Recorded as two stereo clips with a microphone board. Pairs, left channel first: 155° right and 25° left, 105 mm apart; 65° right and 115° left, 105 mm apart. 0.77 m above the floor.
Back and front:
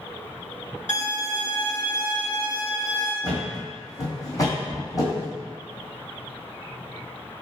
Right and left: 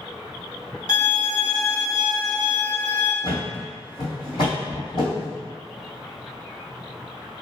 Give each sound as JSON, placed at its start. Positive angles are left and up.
{"t": 0.9, "sound": "a violin", "azimuth_deg": -90, "distance_m": 1.9}
{"t": 3.2, "sound": "a thud", "azimuth_deg": -105, "distance_m": 1.7}